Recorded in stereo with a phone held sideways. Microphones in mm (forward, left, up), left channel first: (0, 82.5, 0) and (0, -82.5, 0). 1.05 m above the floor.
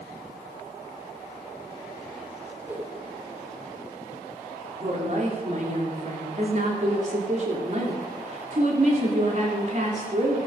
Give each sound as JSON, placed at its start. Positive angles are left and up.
{"t": 2.6, "sound": "a whoosh", "side_deg": -10, "distance_m": 3.0}
{"t": 4.8, "sound": "a woman speaking", "side_deg": -50, "distance_m": 2.5}